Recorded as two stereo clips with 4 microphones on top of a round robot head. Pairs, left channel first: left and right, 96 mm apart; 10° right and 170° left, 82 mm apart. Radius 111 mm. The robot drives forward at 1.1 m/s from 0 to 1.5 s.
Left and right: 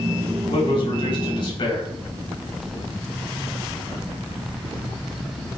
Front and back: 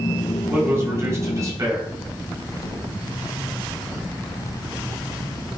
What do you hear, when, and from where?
0.5 s a man speaking: 105° left, 4 m; by 1.9 s 120° left, 4 m